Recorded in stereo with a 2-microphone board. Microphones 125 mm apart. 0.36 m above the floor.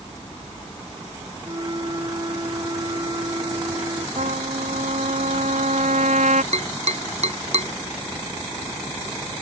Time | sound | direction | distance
1.4 | a flute | 35° right (ahead or behind) | ?
4.2 | a trumpet | 75° right (ahead or behind) | ?
6.5 | tapping | 65° right (ahead or behind) | ?